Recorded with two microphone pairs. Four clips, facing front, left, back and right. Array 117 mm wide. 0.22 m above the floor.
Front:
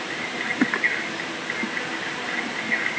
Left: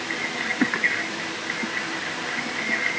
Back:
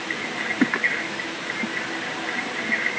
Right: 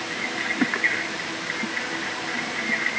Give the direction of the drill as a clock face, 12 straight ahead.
I don't hear a drill.